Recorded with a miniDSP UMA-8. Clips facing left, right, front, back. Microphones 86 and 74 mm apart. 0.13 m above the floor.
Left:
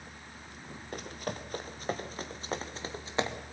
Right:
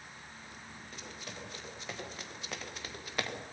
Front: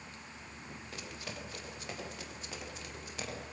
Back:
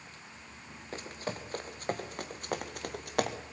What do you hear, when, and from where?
0.9 s running footsteps: 130° left, 3 m; by 3.4 s 155° left, 2.5 m